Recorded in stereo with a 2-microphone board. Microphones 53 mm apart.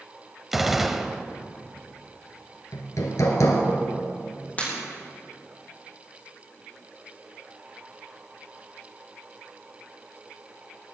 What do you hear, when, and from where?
0.5 s a gunshot: 5° right (ahead or behind), 0.8 m
2.7 s hammering: 80° left, 2 m
4.6 s breaking glass: 30° left (ahead or behind), 5.5 m